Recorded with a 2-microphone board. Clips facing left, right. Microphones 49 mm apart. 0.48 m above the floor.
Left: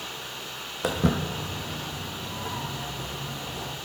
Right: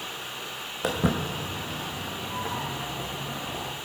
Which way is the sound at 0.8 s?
Centre (ahead or behind).